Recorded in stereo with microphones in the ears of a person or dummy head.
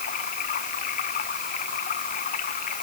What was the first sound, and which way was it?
Running water, 40° left (ahead or behind).